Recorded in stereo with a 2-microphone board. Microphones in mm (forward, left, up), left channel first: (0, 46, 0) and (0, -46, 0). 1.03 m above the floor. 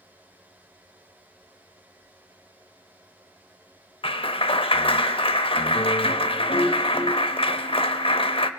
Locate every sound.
4.0 s a clap: 80° left, 0.6 m